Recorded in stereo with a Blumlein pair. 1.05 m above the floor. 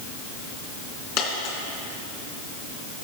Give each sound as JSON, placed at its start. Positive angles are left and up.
{"t": 1.2, "sound": "a dropped coin", "azimuth_deg": 40, "distance_m": 3.0}